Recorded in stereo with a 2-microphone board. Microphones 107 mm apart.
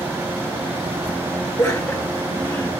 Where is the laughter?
10° left (ahead or behind), 1.9 m; by 2.7 s 20° left (ahead or behind), 1.7 m.